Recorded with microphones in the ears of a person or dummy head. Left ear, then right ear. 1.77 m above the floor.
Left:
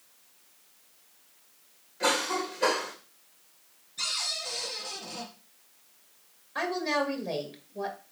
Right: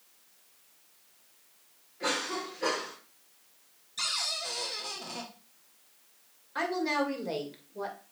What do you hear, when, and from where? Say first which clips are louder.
2.0 s a cough: left 5 dB; 25° left (ahead or behind), 2.5 m
4.0 s a cupboard door: even; 45° right (ahead or behind), 1.8 m
6.5 s a woman speaking: left 1 dB; 5° right (ahead or behind), 2.5 m